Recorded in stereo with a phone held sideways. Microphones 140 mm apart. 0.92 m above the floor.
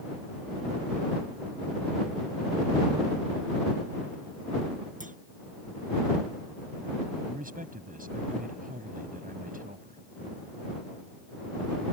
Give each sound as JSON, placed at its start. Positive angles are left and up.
{"t": 5.0, "sound": "a clunk", "side_deg": -70}
{"t": 7.3, "sound": "a man speaking", "side_deg": -80}